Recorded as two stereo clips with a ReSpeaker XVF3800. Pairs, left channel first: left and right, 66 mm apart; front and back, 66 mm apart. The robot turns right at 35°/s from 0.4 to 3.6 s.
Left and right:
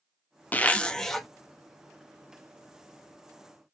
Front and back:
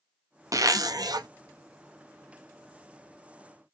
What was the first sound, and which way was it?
A zipper, 155° left.